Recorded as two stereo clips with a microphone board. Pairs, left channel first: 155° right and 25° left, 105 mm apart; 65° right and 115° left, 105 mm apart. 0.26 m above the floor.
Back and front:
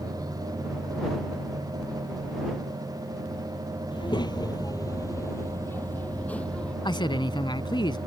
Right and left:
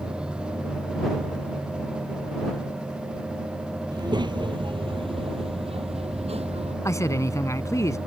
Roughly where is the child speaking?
Behind.